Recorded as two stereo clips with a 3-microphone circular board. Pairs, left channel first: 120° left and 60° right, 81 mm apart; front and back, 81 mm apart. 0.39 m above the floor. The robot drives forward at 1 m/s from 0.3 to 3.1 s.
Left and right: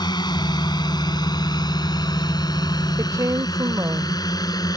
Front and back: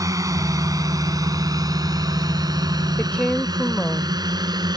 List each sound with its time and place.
0.0 s a drone: 140° left; by 4.8 s 155° left
3.0 s a woman speaking: 65° right; by 4.7 s 70° right